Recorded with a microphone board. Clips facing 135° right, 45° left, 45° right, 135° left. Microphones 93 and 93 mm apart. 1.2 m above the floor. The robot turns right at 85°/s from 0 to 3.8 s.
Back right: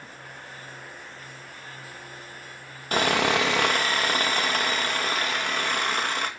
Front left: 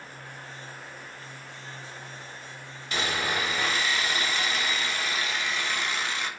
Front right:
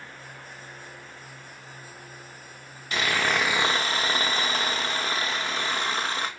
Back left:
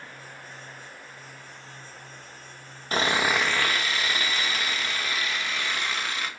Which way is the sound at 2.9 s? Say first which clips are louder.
Back right 7 dB, back left 1 dB; 175° right.